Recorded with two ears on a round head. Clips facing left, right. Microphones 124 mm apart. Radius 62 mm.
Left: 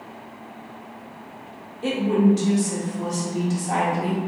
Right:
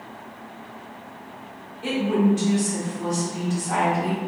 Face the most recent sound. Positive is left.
turn(degrees=40)  # may be behind; listen again after turning